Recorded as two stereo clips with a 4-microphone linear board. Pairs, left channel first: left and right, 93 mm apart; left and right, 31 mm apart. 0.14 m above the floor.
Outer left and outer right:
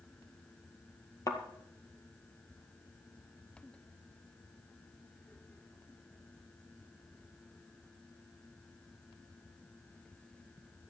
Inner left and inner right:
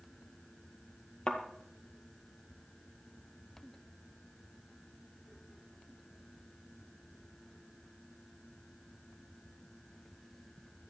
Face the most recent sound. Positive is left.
turn(degrees=40)  # may be behind; listen again after turning